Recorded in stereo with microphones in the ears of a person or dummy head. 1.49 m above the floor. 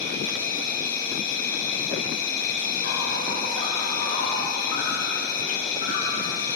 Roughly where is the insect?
Left.